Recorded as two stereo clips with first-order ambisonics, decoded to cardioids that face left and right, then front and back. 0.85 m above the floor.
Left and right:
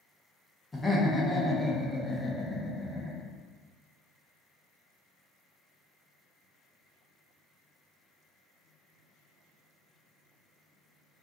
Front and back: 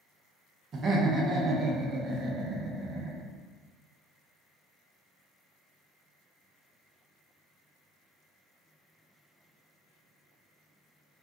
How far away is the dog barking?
I don't hear a dog barking.